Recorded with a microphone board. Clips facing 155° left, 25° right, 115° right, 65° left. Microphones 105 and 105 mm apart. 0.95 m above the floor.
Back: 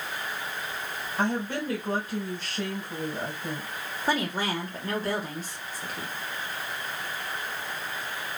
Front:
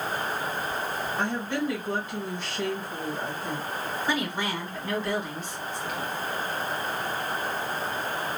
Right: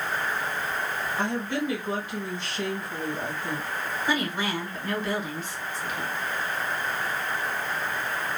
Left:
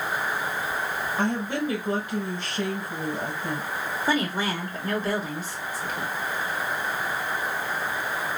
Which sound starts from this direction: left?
A woman speaking, at 1.2 s.